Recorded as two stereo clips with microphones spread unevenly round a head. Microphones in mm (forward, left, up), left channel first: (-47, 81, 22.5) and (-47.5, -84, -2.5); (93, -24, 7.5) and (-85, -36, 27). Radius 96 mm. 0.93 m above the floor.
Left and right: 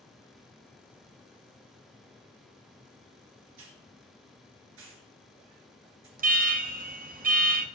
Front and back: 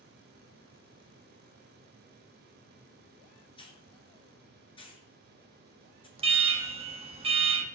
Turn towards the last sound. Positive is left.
turn(degrees=-115)